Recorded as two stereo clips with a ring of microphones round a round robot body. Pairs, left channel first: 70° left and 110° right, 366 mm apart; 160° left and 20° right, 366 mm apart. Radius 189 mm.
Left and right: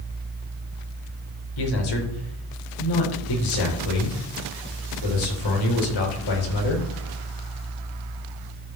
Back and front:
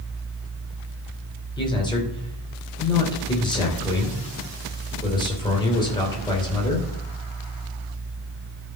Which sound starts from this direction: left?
A man speaking, at 1.6 s.